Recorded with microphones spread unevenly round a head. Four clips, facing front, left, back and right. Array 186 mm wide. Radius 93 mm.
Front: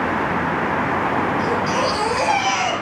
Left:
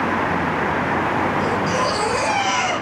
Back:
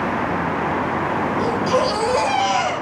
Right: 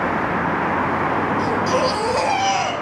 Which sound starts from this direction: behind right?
A baby crying, at 1.4 s.